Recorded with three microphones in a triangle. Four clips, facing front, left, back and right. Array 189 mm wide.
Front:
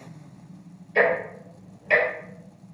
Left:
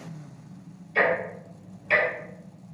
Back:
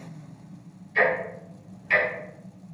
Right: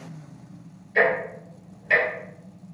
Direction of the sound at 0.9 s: 15° right.